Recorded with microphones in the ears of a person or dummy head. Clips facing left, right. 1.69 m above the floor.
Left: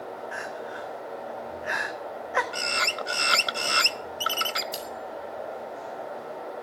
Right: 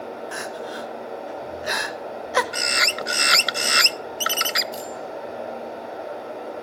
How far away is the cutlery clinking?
About 5.5 m.